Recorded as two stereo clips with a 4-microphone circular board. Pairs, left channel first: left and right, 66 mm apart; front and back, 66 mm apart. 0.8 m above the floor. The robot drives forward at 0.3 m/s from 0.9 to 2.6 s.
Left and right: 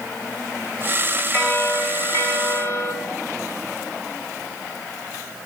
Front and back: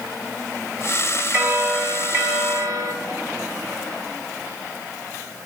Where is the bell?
135° left, 2 m; by 2.9 s 140° left, 2.5 m.